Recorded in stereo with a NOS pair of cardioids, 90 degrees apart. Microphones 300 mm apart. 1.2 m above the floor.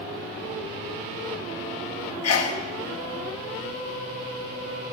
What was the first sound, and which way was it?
A sneeze, 60° left.